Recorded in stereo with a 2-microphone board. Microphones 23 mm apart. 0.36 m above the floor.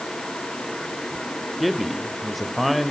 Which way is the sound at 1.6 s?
Centre (ahead or behind).